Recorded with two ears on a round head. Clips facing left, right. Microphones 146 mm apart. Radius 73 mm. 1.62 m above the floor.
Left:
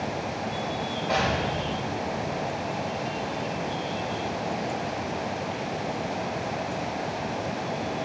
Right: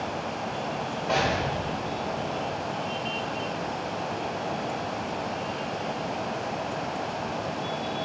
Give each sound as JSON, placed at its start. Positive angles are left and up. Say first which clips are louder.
{"t": 1.1, "sound": "an explosion", "louder": "even", "side_deg": 0, "distance_m": 3.0}